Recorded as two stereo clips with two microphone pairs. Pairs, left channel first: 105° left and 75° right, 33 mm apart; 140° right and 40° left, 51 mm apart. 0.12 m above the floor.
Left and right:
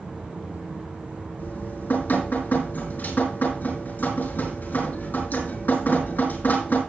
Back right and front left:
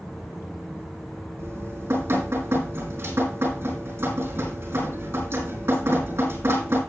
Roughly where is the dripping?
Left.